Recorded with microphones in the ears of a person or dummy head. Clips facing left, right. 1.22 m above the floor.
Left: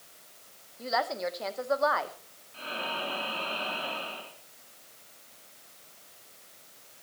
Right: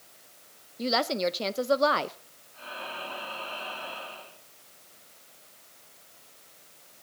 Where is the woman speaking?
45° right (ahead or behind), 0.6 m.